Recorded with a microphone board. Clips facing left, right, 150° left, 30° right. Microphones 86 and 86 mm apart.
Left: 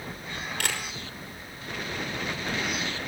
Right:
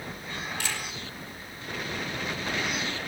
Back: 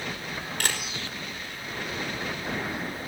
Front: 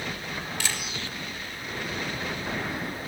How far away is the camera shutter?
About 5 m.